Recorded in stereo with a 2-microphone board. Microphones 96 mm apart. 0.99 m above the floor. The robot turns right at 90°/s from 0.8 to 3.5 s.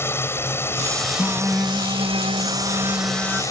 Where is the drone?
155° left; by 3.5 s 40° left.